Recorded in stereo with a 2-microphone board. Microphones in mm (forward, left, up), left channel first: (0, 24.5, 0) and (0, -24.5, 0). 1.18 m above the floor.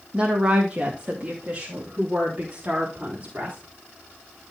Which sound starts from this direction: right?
A woman speaking, at 0.1 s.